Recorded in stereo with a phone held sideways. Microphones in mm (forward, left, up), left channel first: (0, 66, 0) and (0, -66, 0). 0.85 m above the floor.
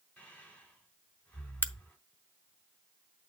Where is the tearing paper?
No tearing paper in this recording.